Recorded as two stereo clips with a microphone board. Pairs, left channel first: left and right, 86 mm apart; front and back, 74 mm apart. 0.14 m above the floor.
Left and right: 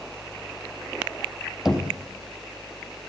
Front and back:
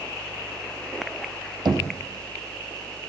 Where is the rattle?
I don't hear a rattle.